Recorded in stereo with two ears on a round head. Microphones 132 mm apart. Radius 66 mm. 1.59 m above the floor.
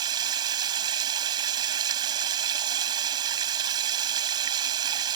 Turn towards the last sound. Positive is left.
turn(degrees=-30)  # may be behind; listen again after turning